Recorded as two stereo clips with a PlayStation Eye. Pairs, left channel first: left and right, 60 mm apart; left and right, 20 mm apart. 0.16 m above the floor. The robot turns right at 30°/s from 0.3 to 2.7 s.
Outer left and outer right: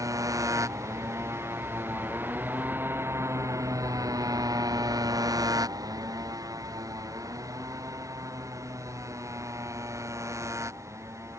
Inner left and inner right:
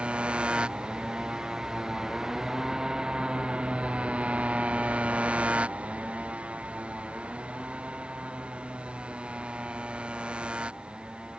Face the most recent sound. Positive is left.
turn(degrees=-50)  # may be behind; listen again after turning